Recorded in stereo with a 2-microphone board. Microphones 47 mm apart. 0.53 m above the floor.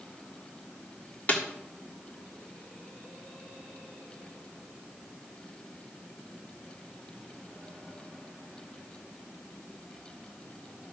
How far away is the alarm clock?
No alarm clock in this recording.